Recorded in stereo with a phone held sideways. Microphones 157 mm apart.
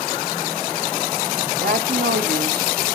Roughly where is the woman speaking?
Right.